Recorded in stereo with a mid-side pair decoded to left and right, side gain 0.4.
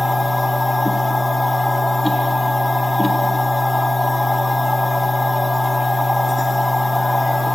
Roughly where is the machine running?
Ahead.